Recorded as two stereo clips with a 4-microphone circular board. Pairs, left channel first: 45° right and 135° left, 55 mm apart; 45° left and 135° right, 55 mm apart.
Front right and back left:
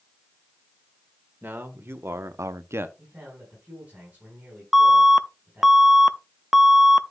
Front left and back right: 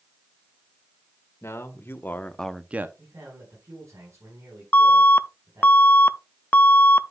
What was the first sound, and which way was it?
A man speaking, 85° left.